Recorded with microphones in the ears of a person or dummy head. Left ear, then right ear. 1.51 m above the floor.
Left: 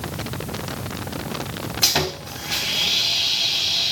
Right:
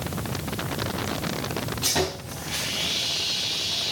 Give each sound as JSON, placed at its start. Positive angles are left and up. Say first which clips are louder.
{"t": 1.8, "sound": "sawing", "louder": "left 6 dB", "side_deg": 45, "distance_m": 3.5}